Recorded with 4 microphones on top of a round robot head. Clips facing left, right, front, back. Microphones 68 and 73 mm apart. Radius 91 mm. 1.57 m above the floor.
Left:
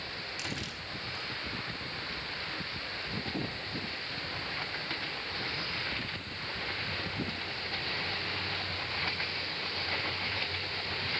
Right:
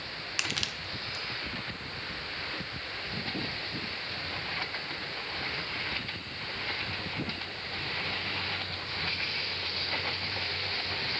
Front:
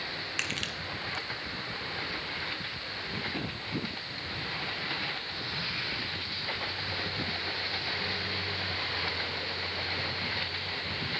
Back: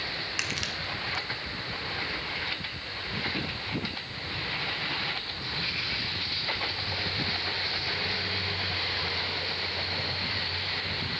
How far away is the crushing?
About 1.5 m.